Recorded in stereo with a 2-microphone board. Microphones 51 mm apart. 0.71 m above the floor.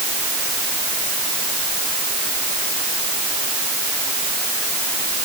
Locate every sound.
Only background noise.